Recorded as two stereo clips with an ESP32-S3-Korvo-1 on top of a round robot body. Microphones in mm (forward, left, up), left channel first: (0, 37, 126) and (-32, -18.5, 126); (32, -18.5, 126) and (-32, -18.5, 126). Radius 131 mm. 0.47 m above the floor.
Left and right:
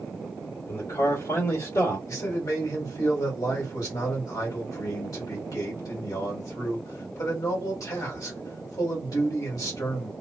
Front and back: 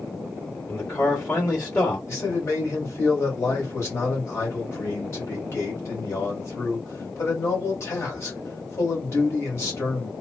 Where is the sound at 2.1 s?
40° left, 2.0 m.